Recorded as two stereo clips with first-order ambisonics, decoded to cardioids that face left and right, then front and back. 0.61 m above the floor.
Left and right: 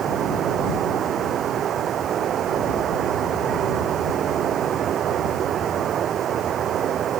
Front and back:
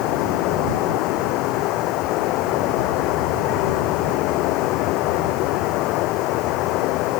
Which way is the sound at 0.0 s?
35° right.